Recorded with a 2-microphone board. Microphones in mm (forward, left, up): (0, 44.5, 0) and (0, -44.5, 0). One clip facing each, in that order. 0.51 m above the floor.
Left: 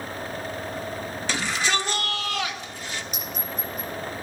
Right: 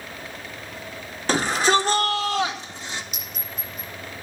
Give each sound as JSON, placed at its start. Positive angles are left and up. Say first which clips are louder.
{"t": 1.3, "sound": "a shout", "louder": "right 7 dB", "side_deg": -45, "distance_m": 1.7}
{"t": 3.1, "sound": "a clink", "louder": "left 5 dB", "side_deg": 40, "distance_m": 6.0}